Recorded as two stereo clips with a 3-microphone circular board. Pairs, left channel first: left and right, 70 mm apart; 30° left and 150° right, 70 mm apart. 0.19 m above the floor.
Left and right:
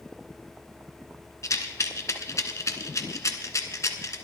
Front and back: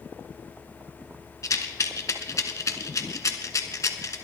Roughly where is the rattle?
Ahead left.